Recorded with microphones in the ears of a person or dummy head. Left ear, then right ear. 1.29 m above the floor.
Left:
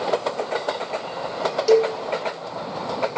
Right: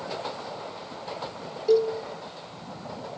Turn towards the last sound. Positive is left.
turn(degrees=65)  # may be behind; listen again after turning